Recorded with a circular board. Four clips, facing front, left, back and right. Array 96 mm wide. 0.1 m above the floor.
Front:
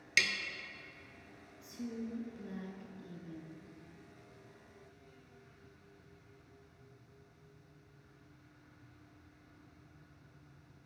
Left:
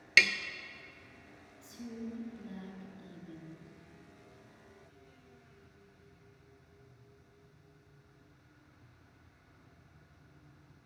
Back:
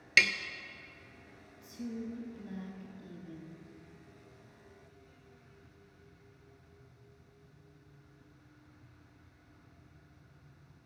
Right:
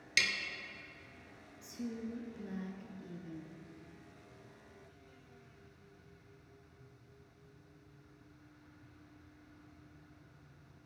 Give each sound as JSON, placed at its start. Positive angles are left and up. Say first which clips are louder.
{"t": 0.2, "sound": "tapping", "louder": "left 8 dB, back 6 dB", "azimuth_deg": 120, "distance_m": 0.6}
{"t": 1.6, "sound": "a woman speaking", "louder": "right 1 dB, back 2 dB", "azimuth_deg": -80, "distance_m": 1.1}